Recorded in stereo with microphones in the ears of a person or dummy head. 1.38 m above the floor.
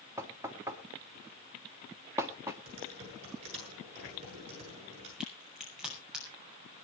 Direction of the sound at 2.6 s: 35° right (ahead or behind).